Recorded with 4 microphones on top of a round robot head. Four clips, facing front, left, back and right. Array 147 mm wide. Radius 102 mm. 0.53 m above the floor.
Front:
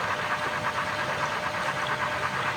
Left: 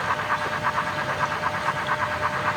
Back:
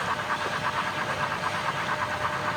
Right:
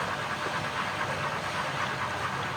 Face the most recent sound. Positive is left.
No sound to turn to.